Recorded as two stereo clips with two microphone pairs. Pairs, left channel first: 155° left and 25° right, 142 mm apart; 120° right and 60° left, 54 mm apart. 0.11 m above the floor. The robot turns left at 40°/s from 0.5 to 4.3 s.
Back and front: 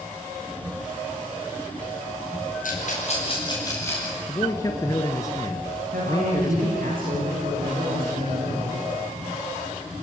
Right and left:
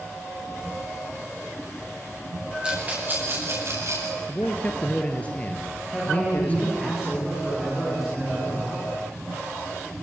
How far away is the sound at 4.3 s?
About 1.6 m.